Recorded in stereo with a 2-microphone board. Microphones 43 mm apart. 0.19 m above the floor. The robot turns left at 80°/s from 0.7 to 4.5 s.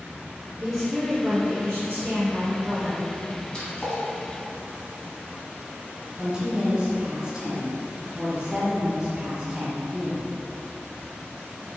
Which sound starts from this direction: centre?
A woman speaking, at 6.2 s.